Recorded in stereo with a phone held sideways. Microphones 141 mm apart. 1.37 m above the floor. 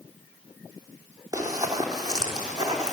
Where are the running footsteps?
25° right (ahead or behind), 2.5 m.